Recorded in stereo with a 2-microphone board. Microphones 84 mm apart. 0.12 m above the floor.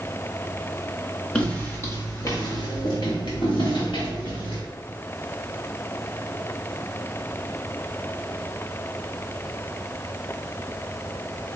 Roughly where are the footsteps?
Centre.